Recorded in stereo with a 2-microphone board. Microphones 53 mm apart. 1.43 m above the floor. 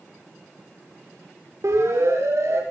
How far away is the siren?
About 6.5 m.